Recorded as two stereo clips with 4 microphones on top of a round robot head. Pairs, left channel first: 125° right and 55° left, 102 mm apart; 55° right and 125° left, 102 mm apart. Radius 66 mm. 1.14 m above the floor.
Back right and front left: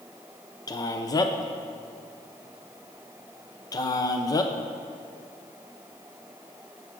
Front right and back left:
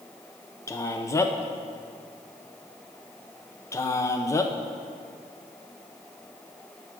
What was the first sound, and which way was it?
A man speaking, 100° right.